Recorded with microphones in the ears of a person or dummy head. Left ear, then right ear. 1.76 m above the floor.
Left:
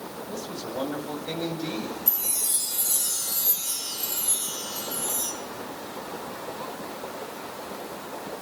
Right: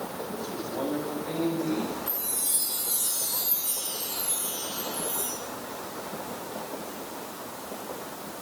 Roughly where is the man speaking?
Left.